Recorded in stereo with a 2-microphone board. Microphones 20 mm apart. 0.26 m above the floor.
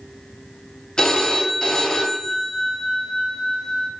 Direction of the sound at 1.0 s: 40° left (ahead or behind).